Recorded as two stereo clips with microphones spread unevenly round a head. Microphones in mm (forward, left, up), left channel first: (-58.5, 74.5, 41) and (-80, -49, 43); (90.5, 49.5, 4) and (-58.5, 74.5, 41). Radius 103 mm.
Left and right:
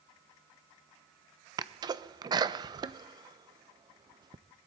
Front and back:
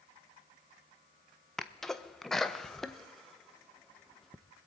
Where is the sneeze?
75° right, 0.6 m.